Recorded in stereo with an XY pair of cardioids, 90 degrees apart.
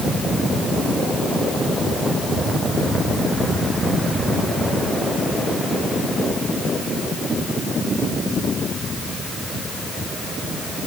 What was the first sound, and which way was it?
Only background noise.